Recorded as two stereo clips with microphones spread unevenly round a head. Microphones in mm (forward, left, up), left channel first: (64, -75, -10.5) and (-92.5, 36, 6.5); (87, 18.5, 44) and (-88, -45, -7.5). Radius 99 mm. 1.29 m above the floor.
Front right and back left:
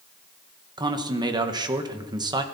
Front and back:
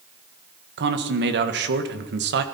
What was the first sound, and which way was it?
A man speaking, 145° right.